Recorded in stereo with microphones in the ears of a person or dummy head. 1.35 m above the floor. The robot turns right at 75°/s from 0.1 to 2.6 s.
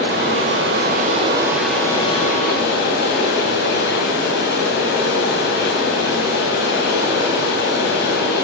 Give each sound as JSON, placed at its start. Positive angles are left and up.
{"t": 0.0, "sound": "running water", "azimuth_deg": -120, "distance_m": 3.5}